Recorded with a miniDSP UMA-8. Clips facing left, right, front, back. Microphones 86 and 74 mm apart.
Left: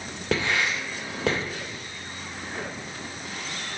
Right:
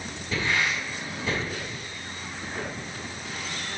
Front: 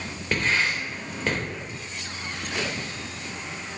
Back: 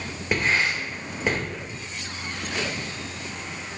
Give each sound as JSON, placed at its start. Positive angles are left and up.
{"t": 0.3, "sound": "writing", "azimuth_deg": 100, "distance_m": 3.0}